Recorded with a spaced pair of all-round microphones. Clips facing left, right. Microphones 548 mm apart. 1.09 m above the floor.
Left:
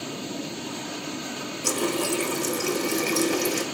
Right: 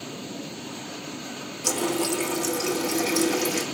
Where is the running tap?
5° right (ahead or behind), 0.6 m.